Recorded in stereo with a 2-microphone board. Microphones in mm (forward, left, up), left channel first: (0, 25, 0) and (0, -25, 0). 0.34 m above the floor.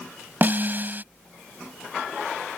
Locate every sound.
0.4 s a snare drum: 40° right (ahead or behind)